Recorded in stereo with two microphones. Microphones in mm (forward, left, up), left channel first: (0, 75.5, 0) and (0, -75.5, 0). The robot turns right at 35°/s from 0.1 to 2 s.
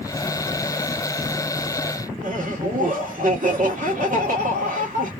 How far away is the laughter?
About 1.3 m.